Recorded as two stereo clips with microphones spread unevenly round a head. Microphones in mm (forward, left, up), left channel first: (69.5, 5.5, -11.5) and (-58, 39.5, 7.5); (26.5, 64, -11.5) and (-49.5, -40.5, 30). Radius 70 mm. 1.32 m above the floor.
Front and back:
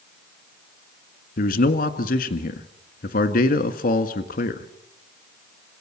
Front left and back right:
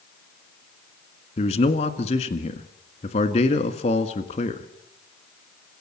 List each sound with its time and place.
1.4 s a man speaking: 5° left, 1.8 m